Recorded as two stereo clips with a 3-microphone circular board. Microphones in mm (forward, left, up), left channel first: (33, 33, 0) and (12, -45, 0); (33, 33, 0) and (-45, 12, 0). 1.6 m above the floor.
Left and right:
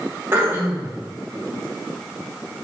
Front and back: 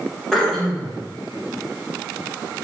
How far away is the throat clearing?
About 0.8 m.